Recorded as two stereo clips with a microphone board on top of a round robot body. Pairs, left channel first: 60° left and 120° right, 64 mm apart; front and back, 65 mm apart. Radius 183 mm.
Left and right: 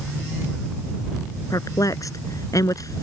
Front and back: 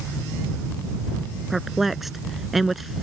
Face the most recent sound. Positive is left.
turn(degrees=95)